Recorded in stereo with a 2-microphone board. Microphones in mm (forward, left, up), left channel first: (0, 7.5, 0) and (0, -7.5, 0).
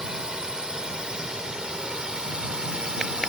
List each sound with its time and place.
0.0 s a drone: 60° right (ahead or behind); by 3.3 s 65° right (ahead or behind)